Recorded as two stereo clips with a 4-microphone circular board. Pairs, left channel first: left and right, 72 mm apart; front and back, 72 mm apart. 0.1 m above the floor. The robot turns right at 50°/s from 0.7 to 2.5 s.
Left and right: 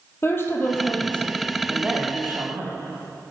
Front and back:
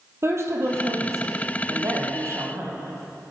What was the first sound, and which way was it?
A woman speaking, 140° left.